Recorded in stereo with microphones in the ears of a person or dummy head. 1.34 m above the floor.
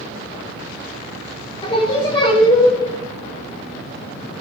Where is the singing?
30° left (ahead or behind), 2.5 m.